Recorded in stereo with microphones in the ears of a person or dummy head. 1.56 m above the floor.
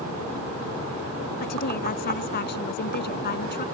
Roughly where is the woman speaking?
Left.